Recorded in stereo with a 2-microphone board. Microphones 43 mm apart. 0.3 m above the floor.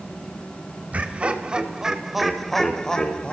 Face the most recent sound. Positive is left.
turn(degrees=25)  # may be behind; listen again after turning